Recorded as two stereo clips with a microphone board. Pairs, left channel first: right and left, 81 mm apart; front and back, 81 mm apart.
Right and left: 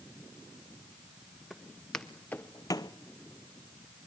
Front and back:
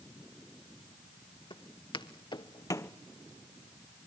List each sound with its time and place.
1.5 s footsteps: straight ahead, 1.8 m; by 2.9 s 65° right, 0.6 m